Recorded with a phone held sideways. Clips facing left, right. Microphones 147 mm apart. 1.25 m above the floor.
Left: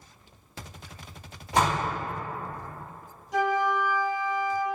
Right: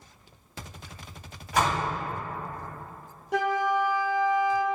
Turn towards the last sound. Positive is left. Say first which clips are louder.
# even
turn(degrees=-65)  # may be behind; listen again after turning